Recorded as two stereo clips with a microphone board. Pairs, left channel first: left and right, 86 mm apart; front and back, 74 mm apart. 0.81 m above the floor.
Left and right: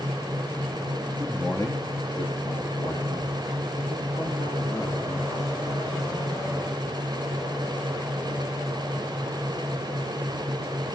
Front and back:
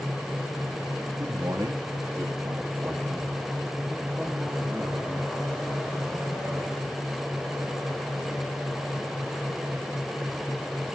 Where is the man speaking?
160° left, 1.4 m; by 6.8 s 95° left, 6.5 m.